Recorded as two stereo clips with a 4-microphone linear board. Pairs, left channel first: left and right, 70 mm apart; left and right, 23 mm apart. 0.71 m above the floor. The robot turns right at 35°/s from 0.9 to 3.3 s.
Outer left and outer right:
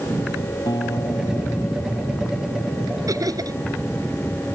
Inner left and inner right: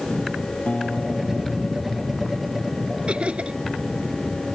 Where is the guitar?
100° left; by 2.8 s 165° left.